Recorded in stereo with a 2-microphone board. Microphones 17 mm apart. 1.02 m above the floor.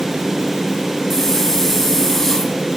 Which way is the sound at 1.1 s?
20° left (ahead or behind).